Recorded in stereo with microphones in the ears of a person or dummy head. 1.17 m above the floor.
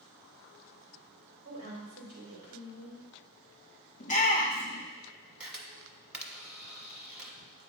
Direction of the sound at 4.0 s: 35° left (ahead or behind).